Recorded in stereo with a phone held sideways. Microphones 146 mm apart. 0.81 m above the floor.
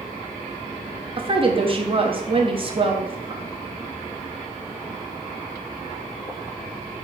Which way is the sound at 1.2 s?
40° right (ahead or behind).